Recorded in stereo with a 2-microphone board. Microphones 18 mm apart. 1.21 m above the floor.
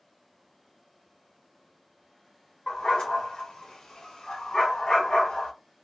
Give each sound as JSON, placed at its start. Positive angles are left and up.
{"t": 2.7, "sound": "a dog barking", "side_deg": 60, "distance_m": 1.5}